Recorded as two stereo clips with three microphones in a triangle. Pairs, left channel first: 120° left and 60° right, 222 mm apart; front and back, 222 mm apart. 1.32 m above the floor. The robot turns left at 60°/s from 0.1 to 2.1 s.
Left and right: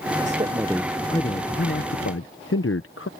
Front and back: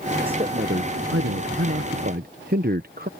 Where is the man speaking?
115° right; by 3.1 s 135° left.